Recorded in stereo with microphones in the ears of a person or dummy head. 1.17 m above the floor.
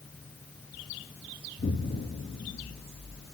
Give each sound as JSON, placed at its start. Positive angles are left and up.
{"t": 1.6, "sound": "an explosion", "side_deg": 35, "distance_m": 1.2}